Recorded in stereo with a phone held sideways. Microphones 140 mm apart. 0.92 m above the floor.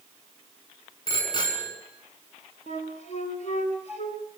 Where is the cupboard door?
No cupboard door in this recording.